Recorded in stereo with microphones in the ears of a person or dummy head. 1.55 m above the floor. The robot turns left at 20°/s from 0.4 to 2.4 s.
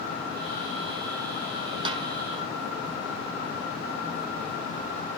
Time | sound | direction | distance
1.9 | a snare drum | 30° right (ahead or behind) | 3 m